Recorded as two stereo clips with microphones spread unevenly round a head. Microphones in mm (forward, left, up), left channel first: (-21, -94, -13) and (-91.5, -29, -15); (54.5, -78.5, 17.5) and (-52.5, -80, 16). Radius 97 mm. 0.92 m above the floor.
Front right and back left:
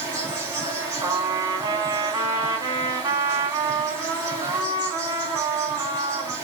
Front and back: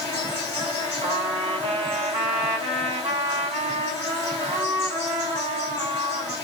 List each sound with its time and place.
0.0 s an insect: 65° left, 2.0 m
1.0 s a trumpet: straight behind, 1.5 m